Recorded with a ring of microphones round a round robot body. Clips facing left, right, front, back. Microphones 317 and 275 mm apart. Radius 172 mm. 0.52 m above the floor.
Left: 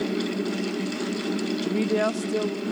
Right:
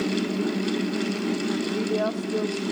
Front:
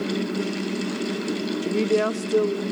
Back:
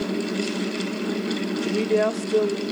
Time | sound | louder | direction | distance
1.6 | a woman speaking | left 2 dB, even | 65° left | 1.0 m